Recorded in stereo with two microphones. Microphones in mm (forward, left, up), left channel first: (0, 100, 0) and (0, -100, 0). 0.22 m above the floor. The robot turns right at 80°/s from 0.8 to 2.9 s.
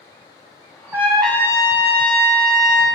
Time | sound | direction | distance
0.9 | a trumpet | 20° right | 0.8 m